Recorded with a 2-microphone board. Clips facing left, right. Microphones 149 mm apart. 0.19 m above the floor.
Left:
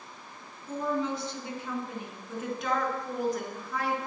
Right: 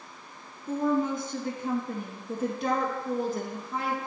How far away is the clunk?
No clunk in this recording.